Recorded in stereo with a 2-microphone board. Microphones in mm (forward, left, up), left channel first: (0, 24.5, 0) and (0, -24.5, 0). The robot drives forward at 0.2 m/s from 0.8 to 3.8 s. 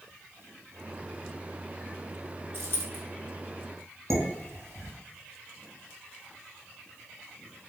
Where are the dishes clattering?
70° right (ahead or behind), 1.8 m.